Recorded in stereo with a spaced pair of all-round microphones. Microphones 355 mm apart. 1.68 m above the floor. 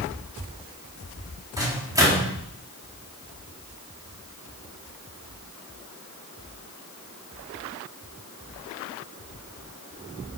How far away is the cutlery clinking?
I don't hear cutlery clinking.